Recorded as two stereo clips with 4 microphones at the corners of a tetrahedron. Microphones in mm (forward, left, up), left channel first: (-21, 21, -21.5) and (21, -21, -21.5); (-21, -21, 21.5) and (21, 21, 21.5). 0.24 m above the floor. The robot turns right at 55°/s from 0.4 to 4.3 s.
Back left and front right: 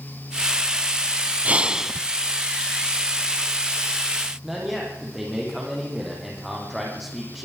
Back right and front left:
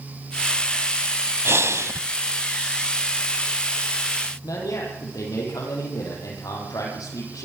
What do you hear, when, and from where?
1.4 s breathing: 10° left, 0.7 m; by 2.0 s 45° left, 0.7 m
4.4 s a man speaking: 135° right, 9.5 m